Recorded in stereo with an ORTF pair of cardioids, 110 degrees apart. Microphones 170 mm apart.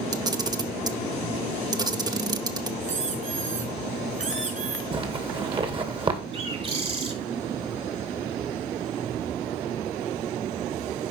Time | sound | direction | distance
0.1 | a camera shutter | 25° right | 1.1 m
2.8 | a squeak | 45° right | 5 m
4.9 | a zipper | 30° right | 2 m
6.3 | a bird | 35° right | 3 m